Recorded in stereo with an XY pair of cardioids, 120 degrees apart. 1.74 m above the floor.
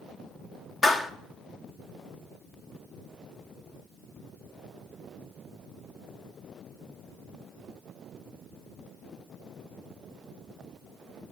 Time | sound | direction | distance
0.8 | a clap | 45° left | 1.3 m